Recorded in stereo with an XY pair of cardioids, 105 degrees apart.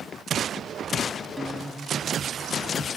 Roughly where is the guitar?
Ahead.